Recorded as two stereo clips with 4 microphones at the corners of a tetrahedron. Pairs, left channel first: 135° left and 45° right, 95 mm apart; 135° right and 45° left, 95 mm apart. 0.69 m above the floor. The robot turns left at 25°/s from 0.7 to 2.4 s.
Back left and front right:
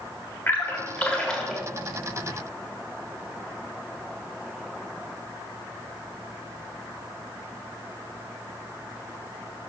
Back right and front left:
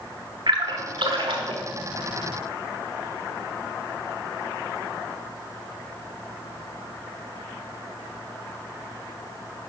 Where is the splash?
70° left, 1.4 m; by 1.6 s 45° left, 1.4 m.